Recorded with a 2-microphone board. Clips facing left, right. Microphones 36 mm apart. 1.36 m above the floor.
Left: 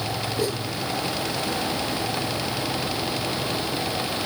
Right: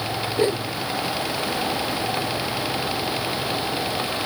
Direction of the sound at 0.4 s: 35° right (ahead or behind).